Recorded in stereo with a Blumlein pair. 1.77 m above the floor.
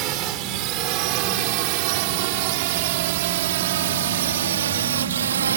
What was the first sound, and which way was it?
A drone, 40° right.